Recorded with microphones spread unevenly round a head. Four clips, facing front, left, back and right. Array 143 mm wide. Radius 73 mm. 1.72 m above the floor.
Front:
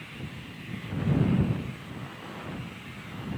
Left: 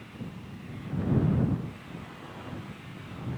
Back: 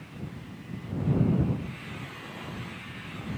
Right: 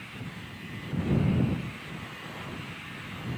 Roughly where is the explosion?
No explosion in this recording.